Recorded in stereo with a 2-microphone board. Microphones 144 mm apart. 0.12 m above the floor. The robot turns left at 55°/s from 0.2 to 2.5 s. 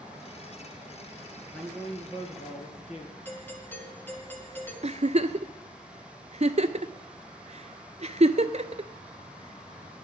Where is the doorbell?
10° left (ahead or behind), 1.5 m.